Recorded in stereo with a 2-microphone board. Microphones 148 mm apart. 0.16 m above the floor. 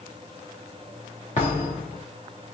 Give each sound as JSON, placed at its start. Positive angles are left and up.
{"t": 1.4, "sound": "a thud", "side_deg": 45, "distance_m": 6.5}